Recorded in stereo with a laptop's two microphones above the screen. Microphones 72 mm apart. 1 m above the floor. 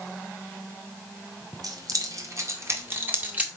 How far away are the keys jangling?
About 2 m.